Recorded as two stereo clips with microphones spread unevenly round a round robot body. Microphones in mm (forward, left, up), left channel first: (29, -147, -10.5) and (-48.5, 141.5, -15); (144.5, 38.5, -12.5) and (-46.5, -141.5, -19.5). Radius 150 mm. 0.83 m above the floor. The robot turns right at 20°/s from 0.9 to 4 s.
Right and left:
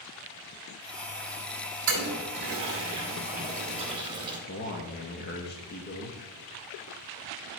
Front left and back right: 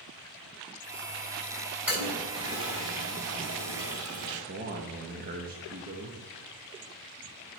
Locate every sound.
1.9 s a toilet flushing: 140° left, 2 m; by 4.4 s straight behind, 2 m
4.5 s a man speaking: 115° right, 0.7 m